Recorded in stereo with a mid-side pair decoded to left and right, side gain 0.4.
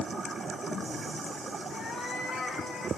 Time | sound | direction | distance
1.7 | a cat meowing | 55° left | 3 m